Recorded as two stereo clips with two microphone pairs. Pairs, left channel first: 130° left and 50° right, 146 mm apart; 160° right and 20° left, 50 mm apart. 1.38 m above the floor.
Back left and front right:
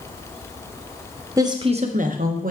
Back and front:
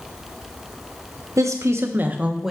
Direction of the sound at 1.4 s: 15° left.